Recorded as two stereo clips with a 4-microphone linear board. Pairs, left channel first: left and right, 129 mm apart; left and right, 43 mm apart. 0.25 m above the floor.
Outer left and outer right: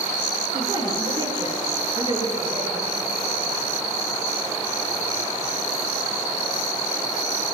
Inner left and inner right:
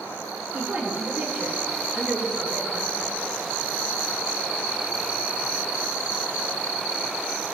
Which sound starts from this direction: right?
A woman speaking, at 0.5 s.